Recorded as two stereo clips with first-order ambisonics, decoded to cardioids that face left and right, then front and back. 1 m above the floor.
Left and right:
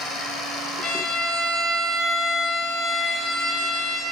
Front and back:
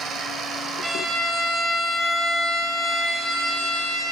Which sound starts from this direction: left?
A violin, at 0.8 s.